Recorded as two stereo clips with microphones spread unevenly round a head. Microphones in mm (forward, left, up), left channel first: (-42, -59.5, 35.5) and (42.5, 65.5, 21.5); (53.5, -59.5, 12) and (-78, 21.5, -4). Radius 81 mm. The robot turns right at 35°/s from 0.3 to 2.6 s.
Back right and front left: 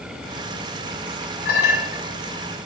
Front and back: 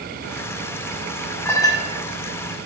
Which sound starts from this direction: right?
A clink, at 1.4 s.